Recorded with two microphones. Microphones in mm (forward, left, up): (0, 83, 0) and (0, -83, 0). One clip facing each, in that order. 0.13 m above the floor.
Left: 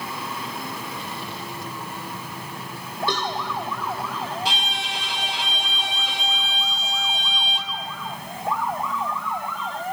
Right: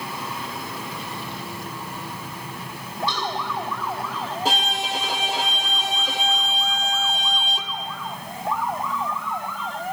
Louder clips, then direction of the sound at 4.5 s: Right 4 dB; 45° right (ahead or behind).